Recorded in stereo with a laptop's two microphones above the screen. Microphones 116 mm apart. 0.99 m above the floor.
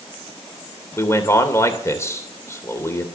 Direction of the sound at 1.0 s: 25° left (ahead or behind).